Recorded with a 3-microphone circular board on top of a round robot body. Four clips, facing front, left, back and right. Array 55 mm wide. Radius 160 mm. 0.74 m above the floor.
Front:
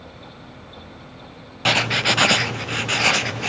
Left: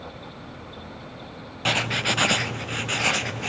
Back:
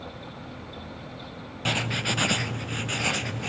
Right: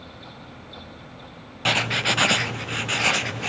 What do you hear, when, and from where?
1.6 s writing: 15° right, 0.7 m